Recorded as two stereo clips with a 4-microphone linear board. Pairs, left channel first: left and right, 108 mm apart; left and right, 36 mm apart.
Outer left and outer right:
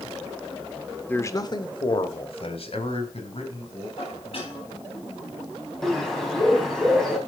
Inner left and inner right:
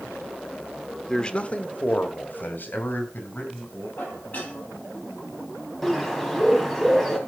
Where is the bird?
5° left (ahead or behind), 3.5 m.